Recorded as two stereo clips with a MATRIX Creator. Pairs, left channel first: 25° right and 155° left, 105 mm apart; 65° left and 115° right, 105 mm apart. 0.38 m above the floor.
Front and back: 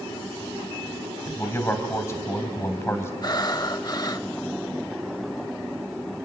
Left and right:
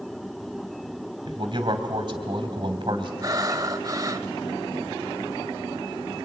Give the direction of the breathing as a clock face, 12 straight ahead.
2 o'clock.